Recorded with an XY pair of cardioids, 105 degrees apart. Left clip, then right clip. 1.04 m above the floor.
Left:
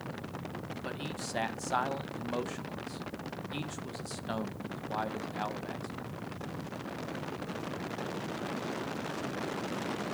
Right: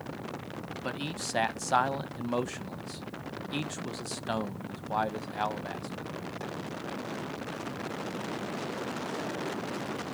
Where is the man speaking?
35° right, 0.6 m.